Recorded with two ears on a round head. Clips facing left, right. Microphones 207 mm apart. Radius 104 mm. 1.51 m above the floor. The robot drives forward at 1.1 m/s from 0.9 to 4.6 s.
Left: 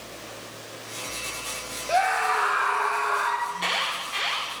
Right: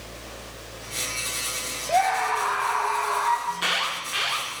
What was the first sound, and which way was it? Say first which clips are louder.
A scream: right 1 dB; 10° left (ahead or behind).